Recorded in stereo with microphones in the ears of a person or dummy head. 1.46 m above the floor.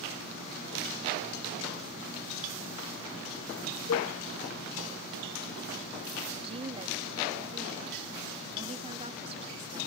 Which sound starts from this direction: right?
A woman speaking, at 6.3 s.